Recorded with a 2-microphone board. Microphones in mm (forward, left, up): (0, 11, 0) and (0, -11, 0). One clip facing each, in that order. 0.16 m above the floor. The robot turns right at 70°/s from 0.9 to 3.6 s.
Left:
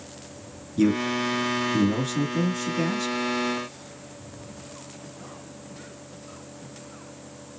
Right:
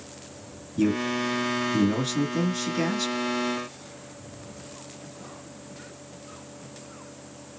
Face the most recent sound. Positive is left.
turn(degrees=-20)